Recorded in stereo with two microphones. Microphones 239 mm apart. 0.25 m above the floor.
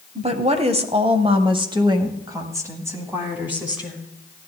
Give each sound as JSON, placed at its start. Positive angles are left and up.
{"t": 0.1, "sound": "a woman speaking", "side_deg": -25, "distance_m": 1.2}